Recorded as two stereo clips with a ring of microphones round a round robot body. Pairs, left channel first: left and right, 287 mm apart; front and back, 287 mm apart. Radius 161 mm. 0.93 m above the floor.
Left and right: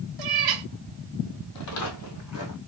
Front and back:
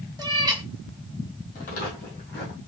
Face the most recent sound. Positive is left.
turn(degrees=55)